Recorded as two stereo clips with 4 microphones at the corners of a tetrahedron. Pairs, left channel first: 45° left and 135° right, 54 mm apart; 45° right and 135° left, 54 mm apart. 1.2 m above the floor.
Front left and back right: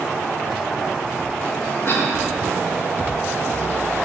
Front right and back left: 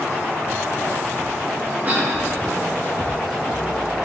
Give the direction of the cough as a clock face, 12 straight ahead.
9 o'clock.